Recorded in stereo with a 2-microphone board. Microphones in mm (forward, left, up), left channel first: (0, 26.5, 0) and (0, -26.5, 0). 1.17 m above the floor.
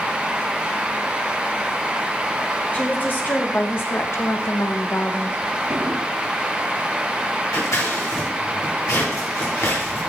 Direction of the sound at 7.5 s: 80° left.